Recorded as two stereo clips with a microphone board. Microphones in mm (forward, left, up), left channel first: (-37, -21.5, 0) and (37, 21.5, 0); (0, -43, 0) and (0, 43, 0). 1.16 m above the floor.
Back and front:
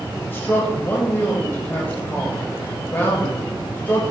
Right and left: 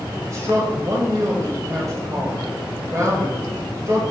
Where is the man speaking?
140° left, 1.6 m.